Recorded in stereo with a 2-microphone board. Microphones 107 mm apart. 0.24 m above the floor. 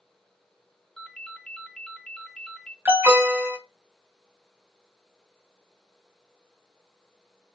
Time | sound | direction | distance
1.0 | a ringtone | 5° left (ahead or behind) | 0.6 m
2.9 | an alarm | 20° right (ahead or behind) | 1.1 m